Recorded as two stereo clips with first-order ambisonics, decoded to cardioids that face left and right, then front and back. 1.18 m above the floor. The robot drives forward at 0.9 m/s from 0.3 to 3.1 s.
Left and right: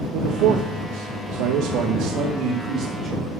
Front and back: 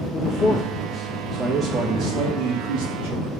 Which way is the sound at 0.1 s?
60° right.